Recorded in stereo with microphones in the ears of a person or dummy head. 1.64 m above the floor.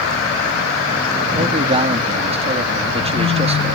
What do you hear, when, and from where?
1.3 s a man speaking: 25° right (ahead or behind)